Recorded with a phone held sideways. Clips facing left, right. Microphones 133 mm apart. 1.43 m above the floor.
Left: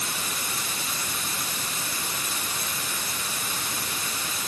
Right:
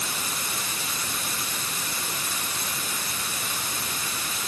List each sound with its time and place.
Only background noise.